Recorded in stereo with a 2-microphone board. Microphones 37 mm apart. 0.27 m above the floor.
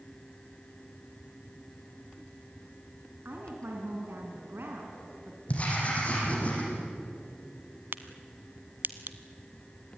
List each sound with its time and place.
3.2 s a woman speaking: 65° right (ahead or behind), 3 m
5.5 s writing: 40° left (ahead or behind), 7 m
7.9 s a crack: 60° right (ahead or behind), 1.1 m